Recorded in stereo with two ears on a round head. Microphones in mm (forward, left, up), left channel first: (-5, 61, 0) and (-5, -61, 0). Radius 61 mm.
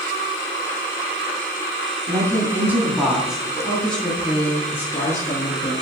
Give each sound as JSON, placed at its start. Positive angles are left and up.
{"t": 2.1, "sound": "a woman speaking", "side_deg": -25, "distance_m": 3.5}